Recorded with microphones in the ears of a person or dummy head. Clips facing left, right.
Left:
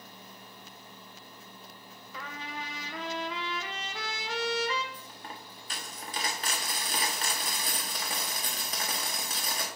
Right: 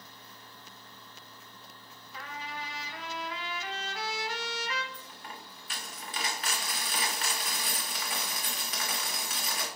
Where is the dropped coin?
35° left (ahead or behind), 1.3 m.